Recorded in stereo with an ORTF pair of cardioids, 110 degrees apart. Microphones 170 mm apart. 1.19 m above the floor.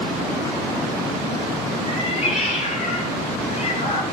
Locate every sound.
1.9 s a cat meowing: 40° left, 5.5 m